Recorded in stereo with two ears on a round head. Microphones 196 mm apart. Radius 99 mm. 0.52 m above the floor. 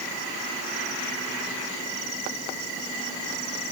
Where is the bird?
I don't hear a bird.